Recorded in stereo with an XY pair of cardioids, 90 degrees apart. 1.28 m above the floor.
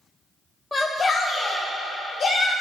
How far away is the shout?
About 0.9 m.